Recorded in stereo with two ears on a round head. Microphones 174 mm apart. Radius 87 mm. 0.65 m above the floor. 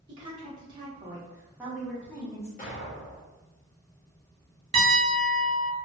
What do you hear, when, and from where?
0.1 s a woman speaking: 25° right (ahead or behind), 1.4 m; by 2.5 s 15° left (ahead or behind), 0.8 m
2.6 s an explosion: 40° left (ahead or behind), 0.8 m
4.7 s a piano: 30° right (ahead or behind), 0.9 m